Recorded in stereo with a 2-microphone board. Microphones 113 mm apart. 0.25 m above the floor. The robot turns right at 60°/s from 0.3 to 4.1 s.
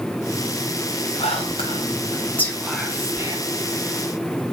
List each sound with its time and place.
1.2 s whispering: 60° left (ahead or behind), 2 m; by 3.4 s 35° right (ahead or behind), 2 m